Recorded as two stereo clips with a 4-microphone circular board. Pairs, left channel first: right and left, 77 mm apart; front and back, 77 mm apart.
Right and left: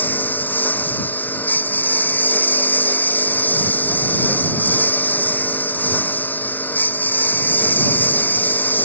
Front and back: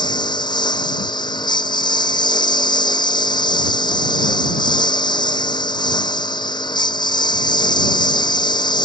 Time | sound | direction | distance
0.0 | a lawn mower | 25° right | ?